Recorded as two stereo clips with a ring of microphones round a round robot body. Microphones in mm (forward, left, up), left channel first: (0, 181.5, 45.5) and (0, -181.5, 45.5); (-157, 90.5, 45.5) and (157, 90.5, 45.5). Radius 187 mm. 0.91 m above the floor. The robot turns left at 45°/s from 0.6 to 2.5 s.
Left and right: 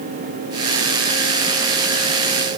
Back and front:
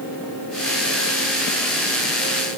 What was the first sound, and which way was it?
Only background noise.